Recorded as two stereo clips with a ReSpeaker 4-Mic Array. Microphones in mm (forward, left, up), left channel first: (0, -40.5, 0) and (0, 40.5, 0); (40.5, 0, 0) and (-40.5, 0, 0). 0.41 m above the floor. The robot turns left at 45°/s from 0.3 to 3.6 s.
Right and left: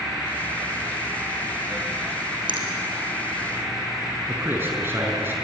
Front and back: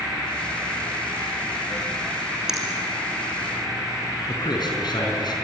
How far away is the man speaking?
About 5 m.